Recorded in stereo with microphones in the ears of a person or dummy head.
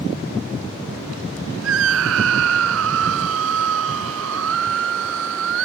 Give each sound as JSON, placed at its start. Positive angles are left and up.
{"t": 1.6, "sound": "a scream", "side_deg": -80}